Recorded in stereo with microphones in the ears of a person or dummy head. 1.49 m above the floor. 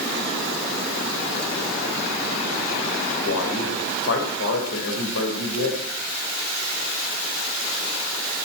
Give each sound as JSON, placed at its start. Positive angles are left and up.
{"t": 3.2, "sound": "a man speaking", "side_deg": 75, "distance_m": 5.5}